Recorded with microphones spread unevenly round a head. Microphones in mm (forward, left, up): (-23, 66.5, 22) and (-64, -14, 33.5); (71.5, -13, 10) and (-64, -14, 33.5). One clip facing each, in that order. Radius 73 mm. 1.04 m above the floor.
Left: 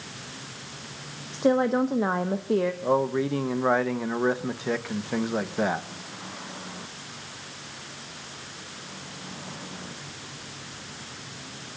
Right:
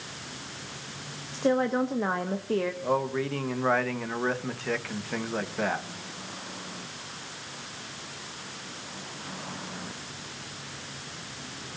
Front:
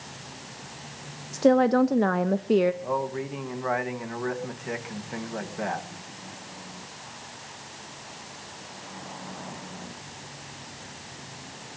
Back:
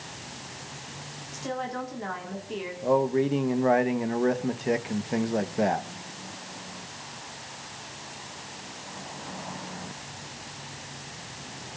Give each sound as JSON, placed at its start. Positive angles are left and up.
{"t": 1.3, "sound": "a woman speaking", "azimuth_deg": -10, "distance_m": 0.7}
{"t": 2.8, "sound": "a man speaking", "azimuth_deg": 125, "distance_m": 1.2}